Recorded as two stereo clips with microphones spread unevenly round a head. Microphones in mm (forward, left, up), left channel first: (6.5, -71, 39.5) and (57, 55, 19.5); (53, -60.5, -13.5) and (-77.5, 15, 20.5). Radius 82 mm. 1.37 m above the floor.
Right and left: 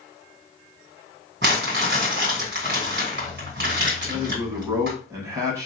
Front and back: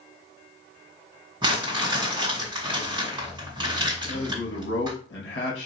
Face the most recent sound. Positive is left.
turn(degrees=0)